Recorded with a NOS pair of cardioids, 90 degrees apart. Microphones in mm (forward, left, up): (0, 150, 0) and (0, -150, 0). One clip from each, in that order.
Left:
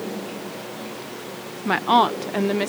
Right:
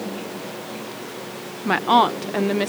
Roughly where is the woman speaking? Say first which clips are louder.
Right 1 dB; ahead.